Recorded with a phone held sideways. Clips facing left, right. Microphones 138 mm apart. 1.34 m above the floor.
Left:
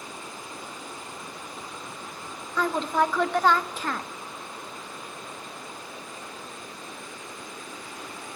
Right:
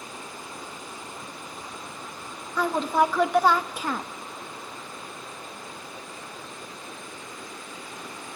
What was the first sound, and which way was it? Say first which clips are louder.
A woman speaking: right 2 dB; 10° right (ahead or behind).